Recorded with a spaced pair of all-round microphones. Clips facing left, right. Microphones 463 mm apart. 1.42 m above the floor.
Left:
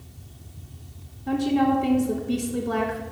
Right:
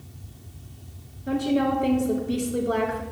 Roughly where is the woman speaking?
Centre.